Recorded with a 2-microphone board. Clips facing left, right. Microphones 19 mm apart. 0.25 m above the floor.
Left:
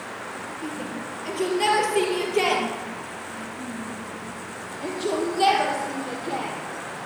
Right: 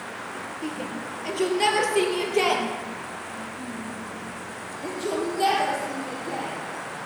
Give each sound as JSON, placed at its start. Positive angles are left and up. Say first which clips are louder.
{"t": 0.6, "sound": "a shout", "louder": "right 1 dB", "side_deg": -15, "distance_m": 5.0}